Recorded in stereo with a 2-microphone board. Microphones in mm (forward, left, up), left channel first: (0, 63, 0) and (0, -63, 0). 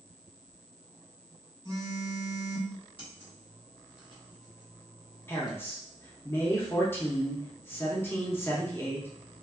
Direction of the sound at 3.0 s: 45° left (ahead or behind).